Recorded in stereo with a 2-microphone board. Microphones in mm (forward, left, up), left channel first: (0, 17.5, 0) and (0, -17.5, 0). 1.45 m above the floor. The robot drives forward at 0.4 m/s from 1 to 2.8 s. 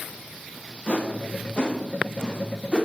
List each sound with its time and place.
0.9 s a whoosh: 35° left (ahead or behind), 0.8 m; by 2.9 s 20° left (ahead or behind), 1.3 m